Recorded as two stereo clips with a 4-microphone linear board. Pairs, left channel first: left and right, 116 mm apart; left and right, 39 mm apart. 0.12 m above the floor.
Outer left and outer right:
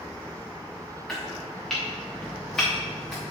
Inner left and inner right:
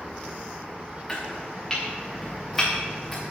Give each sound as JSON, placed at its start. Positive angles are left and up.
{"t": 1.1, "sound": "chopping", "side_deg": 5, "distance_m": 3.5}